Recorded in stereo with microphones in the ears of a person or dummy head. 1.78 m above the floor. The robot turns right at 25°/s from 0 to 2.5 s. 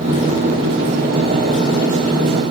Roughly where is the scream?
I don't hear a scream.